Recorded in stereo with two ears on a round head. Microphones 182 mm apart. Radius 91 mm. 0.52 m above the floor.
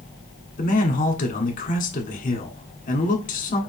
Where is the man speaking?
40° left (ahead or behind), 1.4 m.